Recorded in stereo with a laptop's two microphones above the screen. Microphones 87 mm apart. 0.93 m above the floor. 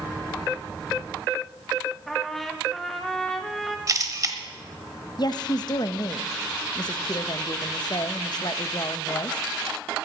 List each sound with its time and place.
2.1 s a trumpet: centre (ahead or behind), 1.5 m
3.9 s a camera shutter: 45° right (ahead or behind), 1.1 m
5.2 s a woman speaking: 55° left (ahead or behind), 0.6 m